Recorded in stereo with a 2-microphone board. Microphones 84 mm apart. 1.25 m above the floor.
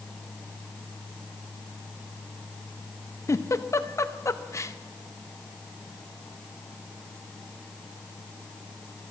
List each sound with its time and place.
3.3 s a giggle: 35° left (ahead or behind), 0.5 m